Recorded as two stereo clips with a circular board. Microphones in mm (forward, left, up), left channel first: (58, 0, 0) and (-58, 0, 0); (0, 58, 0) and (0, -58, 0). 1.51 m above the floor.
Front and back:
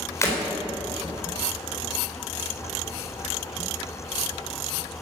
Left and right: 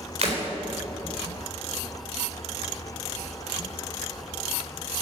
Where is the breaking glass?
65° right, 4 m.